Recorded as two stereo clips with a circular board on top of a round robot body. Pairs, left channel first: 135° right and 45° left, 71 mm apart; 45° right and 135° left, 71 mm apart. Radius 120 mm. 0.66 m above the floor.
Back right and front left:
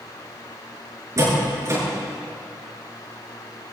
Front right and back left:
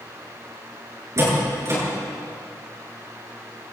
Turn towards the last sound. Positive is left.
turn(degrees=90)